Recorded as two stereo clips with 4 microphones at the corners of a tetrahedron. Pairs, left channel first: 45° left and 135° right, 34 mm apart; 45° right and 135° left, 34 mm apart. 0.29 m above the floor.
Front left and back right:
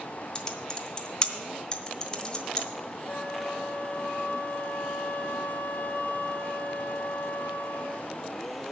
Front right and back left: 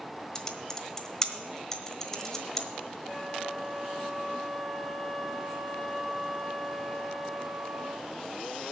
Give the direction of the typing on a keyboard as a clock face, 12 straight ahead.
12 o'clock.